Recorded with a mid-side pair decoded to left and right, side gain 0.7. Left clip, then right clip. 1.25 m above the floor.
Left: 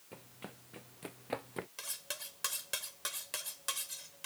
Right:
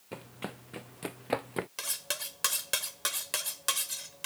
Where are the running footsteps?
40° right; by 1.7 s 35° right.